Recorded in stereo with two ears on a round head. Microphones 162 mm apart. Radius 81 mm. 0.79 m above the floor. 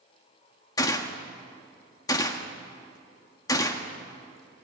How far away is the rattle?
I don't hear a rattle.